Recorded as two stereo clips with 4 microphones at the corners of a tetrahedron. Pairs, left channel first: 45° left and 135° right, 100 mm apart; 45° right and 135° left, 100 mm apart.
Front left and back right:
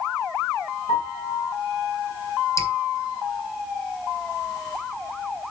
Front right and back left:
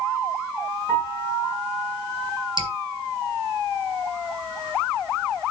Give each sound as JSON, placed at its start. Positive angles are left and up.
{"t": 0.9, "sound": "a piano", "azimuth_deg": 65, "distance_m": 4.5}
{"t": 2.6, "sound": "dripping", "azimuth_deg": 105, "distance_m": 1.8}